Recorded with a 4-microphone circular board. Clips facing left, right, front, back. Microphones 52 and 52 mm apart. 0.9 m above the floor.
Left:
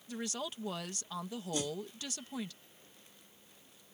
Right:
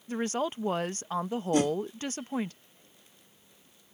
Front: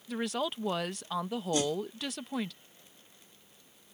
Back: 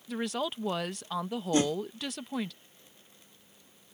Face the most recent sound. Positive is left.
turn(degrees=-125)